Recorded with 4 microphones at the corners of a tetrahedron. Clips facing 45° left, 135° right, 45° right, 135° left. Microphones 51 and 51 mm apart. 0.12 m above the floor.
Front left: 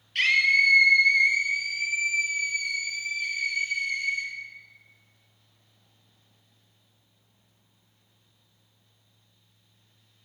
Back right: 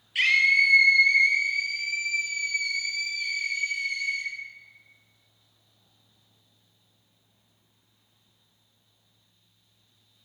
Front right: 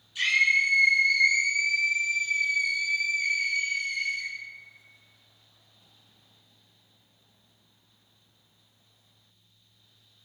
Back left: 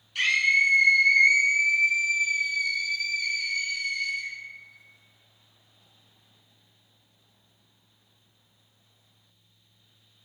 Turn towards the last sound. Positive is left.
turn(degrees=-15)